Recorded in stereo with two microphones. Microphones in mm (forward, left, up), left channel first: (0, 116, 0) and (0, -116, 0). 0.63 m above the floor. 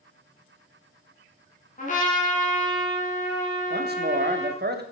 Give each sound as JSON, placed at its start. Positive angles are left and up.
{"t": 1.8, "sound": "a trumpet", "side_deg": 35, "distance_m": 2.5}
{"t": 3.7, "sound": "a man speaking", "side_deg": -50, "distance_m": 0.9}